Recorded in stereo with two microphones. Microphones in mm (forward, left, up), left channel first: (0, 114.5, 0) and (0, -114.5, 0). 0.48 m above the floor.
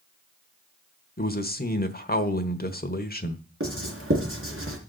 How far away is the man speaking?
About 1.2 m.